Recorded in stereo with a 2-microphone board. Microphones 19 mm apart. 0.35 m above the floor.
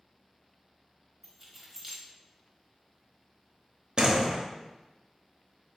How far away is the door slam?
About 0.7 m.